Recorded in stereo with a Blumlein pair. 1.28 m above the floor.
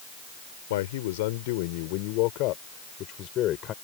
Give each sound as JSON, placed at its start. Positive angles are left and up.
{"t": 0.7, "sound": "a man speaking", "azimuth_deg": 55}